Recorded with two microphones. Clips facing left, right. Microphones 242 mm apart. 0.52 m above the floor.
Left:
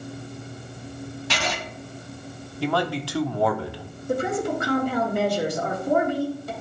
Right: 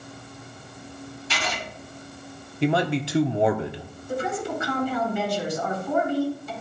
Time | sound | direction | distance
1.3 | writing | 80° left | 1.6 m
2.6 | a man speaking | 20° right (ahead or behind) | 0.6 m
4.1 | a woman speaking | 65° left (ahead or behind) | 2.5 m